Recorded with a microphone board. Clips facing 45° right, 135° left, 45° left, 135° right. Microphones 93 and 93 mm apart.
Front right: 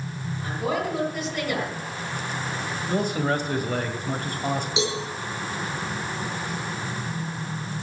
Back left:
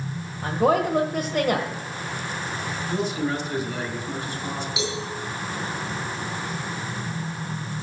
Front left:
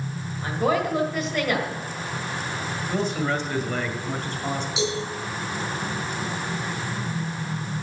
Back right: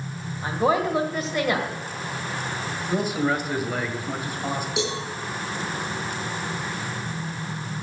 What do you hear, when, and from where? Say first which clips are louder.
0.4 s a woman speaking: back left 7 dB, back right 1 dB; 145° left, 1.6 m
2.9 s a man speaking: front right 2 dB, back right 2 dB; 55° right, 1.9 m
4.8 s a cowbell: front right 2 dB, front left 2 dB; 105° right, 6.5 m